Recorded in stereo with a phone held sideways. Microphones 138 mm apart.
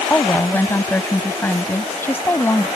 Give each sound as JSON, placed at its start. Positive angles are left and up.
{"t": 0.1, "sound": "a woman speaking", "side_deg": 15}